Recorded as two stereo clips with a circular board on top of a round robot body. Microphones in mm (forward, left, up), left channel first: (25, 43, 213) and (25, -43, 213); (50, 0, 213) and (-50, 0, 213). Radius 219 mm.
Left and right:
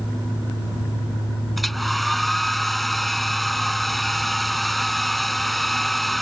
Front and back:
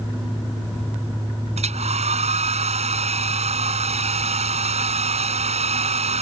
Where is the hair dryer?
Straight behind.